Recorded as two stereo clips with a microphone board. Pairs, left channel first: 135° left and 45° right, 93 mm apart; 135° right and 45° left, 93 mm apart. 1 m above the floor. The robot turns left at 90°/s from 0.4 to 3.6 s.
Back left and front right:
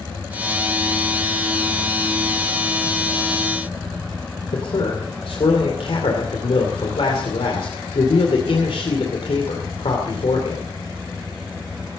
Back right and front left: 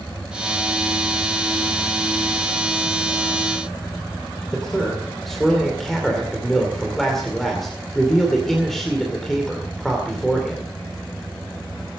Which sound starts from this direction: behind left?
A man speaking, at 4.5 s.